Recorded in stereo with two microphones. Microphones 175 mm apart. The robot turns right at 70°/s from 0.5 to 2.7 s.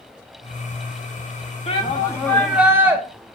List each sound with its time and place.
1.7 s a shout: 125° left, 1.4 m; by 3.0 s 165° right, 1.4 m